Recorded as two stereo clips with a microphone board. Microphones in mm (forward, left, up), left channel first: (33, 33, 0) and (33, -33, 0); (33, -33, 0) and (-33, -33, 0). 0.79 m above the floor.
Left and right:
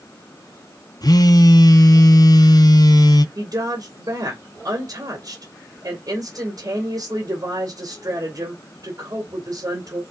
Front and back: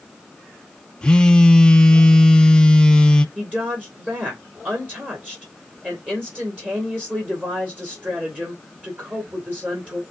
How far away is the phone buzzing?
About 0.5 m.